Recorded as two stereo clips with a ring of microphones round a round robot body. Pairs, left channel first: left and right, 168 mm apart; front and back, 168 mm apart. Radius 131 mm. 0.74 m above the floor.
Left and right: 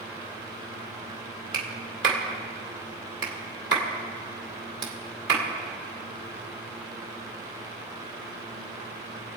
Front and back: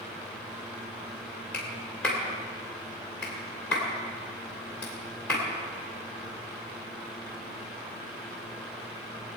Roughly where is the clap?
Right.